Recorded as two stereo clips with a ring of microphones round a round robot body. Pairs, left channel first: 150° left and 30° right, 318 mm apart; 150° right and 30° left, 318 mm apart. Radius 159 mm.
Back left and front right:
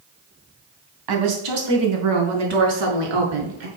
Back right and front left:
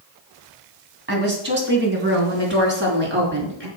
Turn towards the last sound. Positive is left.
turn(degrees=-30)